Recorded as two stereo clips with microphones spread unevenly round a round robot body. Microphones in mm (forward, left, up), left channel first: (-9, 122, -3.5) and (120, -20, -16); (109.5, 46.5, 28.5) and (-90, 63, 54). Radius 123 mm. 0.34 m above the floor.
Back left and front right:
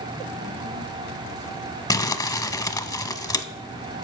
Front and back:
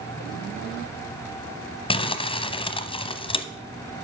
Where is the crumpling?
60° left, 0.9 m.